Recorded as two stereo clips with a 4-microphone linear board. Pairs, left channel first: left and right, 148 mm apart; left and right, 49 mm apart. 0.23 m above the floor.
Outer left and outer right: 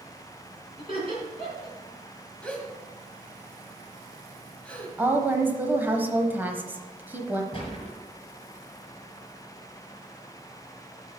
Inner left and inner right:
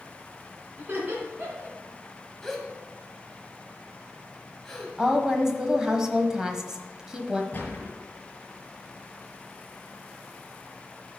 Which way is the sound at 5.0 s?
15° right (ahead or behind).